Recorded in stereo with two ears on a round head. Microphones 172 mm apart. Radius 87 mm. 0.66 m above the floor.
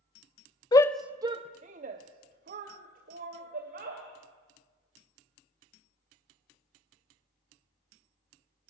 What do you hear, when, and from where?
0.7 s a shout: 20° left (ahead or behind), 0.6 m; by 4.0 s 50° right (ahead or behind), 3 m